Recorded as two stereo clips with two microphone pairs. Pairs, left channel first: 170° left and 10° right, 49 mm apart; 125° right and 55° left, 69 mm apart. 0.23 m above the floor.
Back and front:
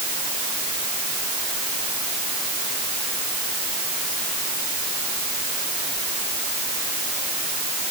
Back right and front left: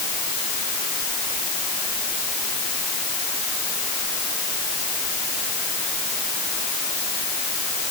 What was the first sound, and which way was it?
Only background noise.